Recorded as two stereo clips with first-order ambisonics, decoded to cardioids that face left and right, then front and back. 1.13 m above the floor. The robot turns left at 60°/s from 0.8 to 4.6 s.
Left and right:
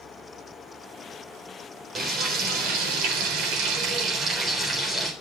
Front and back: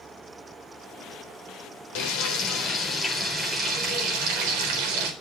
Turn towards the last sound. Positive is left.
turn(degrees=-175)